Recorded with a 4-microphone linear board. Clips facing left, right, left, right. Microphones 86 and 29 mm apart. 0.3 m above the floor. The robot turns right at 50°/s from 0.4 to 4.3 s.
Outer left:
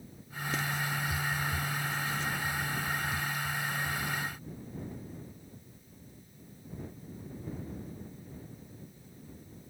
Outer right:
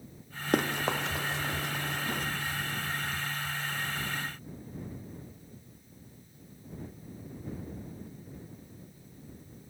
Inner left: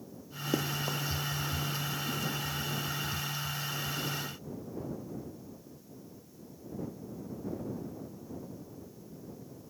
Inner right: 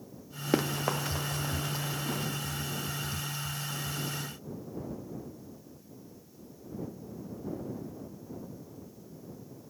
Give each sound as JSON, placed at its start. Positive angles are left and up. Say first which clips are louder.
{"t": 0.5, "sound": "running footsteps", "louder": "outer right 6 dB, inner right 4 dB", "side_deg": -55}